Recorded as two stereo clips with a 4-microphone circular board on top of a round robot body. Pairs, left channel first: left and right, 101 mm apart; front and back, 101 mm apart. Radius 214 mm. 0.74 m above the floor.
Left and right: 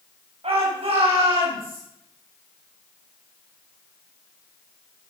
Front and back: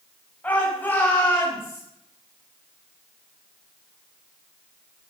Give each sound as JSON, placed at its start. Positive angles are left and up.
{"t": 0.4, "sound": "a shout", "azimuth_deg": -75, "distance_m": 5.5}